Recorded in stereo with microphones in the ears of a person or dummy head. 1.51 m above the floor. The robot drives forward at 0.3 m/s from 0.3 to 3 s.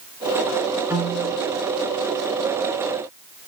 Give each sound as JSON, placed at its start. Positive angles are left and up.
{"t": 0.9, "sound": "a piano", "side_deg": -10, "distance_m": 0.6}